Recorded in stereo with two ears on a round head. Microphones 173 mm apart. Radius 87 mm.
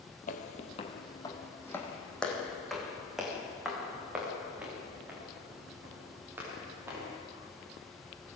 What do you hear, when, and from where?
0.3 s footsteps: 40° left (ahead or behind), 2 m; by 7.1 s 10° right (ahead or behind), 11 m